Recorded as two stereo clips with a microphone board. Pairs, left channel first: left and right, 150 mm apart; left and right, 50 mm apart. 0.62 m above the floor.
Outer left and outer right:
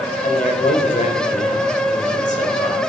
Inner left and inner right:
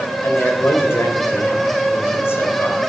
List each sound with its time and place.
0.2 s a man speaking: 60° left (ahead or behind), 3 m